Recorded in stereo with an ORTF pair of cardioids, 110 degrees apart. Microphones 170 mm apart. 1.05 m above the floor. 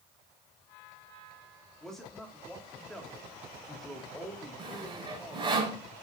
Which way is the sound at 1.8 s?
5° left.